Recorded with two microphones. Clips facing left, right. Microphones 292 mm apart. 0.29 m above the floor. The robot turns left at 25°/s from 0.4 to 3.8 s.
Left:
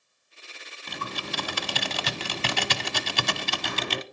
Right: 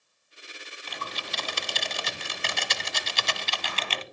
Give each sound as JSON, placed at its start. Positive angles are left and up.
{"t": 0.9, "sound": "typing on a keyboard", "azimuth_deg": 125, "distance_m": 0.8}